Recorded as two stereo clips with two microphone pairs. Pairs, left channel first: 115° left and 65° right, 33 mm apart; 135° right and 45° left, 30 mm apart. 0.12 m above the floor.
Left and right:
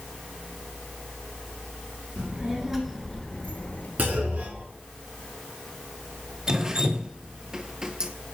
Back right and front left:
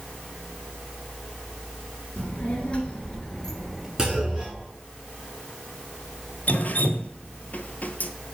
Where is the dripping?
130° right, 0.5 m.